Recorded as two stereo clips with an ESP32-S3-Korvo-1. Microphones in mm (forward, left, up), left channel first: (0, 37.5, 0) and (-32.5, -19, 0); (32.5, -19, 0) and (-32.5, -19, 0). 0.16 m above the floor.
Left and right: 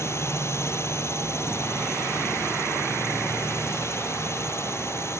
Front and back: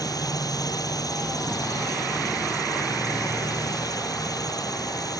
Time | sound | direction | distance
0.0 | a drone | 15° left | ?